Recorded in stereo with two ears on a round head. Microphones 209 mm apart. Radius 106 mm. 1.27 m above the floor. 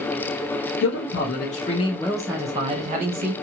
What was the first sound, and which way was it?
A man speaking, 55° left (ahead or behind).